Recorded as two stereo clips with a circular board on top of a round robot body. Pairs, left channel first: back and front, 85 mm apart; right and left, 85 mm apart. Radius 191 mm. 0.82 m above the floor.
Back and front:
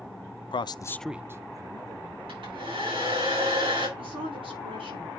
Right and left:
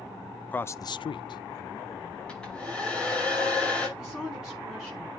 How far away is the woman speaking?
About 7.5 m.